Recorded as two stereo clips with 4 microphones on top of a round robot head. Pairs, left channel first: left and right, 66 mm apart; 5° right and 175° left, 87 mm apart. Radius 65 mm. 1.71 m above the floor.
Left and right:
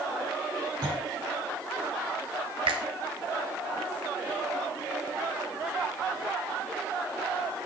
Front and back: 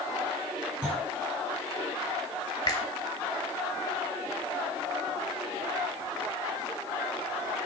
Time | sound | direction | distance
0.8 | a clunk | 100° right | 6 m
2.7 | a finger snap | 60° right | 1.6 m